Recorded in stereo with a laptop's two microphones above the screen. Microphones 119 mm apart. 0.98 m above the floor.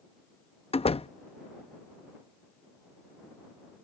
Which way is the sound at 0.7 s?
55° left (ahead or behind).